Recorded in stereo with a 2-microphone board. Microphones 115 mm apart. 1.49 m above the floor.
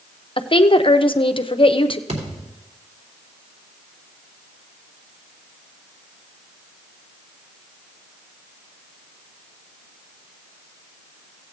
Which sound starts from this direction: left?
A woman speaking, at 0.4 s.